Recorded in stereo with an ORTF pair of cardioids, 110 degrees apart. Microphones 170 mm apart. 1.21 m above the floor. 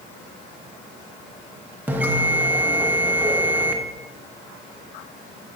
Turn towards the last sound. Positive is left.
turn(degrees=-10)